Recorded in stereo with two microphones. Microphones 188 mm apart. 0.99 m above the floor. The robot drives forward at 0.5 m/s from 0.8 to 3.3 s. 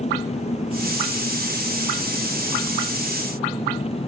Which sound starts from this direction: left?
An engine running, at 0.0 s.